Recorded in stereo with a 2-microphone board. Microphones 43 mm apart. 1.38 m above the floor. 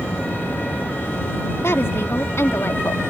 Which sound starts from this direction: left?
A woman speaking, at 1.6 s.